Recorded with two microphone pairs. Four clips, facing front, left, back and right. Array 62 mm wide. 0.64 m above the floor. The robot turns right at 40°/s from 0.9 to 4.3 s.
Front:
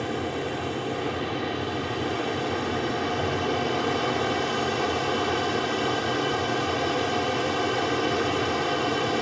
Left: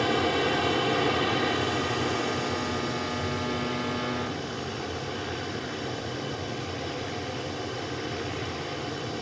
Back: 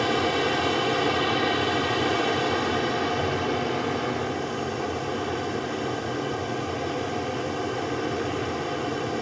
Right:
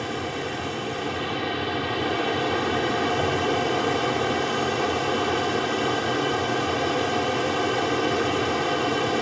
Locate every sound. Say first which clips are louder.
0.0 s an aircraft: left 4 dB, back 5 dB; 160° left; by 9.2 s 65° right